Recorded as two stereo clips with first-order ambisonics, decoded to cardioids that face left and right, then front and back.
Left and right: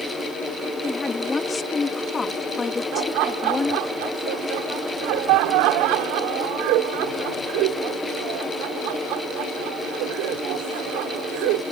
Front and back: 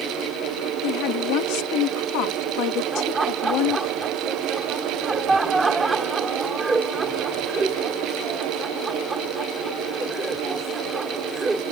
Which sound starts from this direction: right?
Laughter, at 2.9 s.